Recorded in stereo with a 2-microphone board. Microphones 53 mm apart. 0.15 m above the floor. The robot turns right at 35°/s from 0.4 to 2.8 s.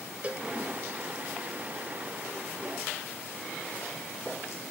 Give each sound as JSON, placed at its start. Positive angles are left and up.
{"t": 0.2, "sound": "a cowbell", "side_deg": -25}